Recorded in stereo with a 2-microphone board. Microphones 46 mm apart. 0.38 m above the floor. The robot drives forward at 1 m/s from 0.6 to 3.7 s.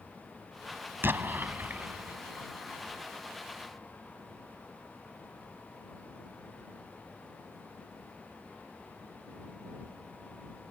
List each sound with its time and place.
1.0 s an explosion: 50° right (ahead or behind); by 2.2 s 35° right (ahead or behind)